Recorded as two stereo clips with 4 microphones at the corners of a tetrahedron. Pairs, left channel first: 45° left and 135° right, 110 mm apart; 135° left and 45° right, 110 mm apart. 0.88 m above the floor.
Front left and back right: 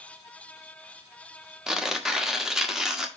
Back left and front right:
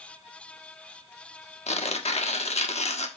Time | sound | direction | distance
1.7 | tearing paper | 140° left | 1.4 m